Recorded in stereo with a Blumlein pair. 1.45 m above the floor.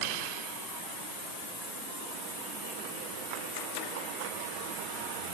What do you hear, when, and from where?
Only background noise.